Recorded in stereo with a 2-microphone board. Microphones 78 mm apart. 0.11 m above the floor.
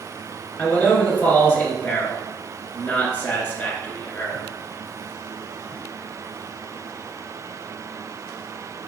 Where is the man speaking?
25° left (ahead or behind), 1.5 m.